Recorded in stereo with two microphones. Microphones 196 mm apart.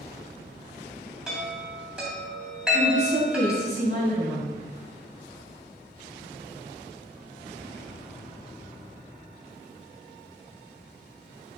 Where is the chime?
5° right (ahead or behind), 2.5 m.